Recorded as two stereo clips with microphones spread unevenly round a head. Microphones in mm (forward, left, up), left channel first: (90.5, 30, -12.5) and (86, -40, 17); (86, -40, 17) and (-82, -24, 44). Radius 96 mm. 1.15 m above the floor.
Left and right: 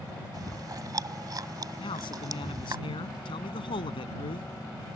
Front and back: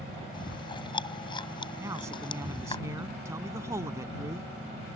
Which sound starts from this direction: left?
A man speaking, at 1.8 s.